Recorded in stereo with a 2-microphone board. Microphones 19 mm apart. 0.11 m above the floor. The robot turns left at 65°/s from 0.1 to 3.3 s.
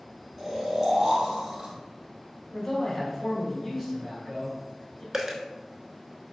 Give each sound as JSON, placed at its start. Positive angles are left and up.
{"t": 0.4, "sound": "snoring", "azimuth_deg": 15, "distance_m": 1.4}
{"t": 2.5, "sound": "a man speaking", "side_deg": 10, "distance_m": 1.3}
{"t": 5.1, "sound": "a dropped coin", "side_deg": -20, "distance_m": 0.5}